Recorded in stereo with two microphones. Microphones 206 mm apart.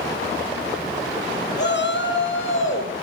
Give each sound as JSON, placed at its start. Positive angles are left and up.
{"t": 1.6, "sound": "a shout", "side_deg": 55, "distance_m": 2.0}